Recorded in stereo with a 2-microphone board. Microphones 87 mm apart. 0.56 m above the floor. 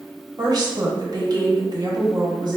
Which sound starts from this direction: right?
A woman speaking, at 0.4 s.